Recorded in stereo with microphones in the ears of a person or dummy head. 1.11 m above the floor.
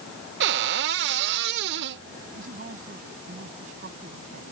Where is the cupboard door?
60° right (ahead or behind).